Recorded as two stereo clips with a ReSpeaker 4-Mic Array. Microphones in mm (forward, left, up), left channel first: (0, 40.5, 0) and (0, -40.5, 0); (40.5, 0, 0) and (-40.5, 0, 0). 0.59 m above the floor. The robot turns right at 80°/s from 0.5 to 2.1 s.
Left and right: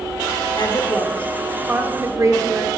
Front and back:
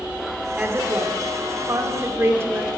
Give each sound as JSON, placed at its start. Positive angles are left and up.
{"t": 0.6, "sound": "a woman speaking", "azimuth_deg": 105, "distance_m": 1.8}